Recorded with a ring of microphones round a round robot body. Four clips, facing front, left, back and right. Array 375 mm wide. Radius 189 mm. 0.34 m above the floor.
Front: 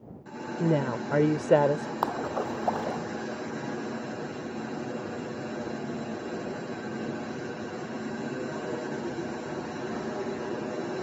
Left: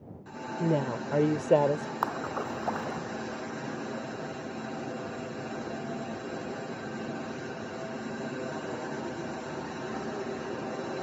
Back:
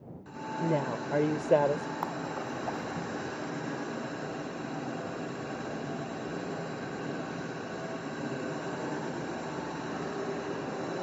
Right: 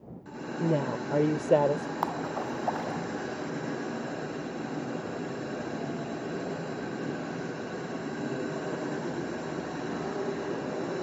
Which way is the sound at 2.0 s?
20° left.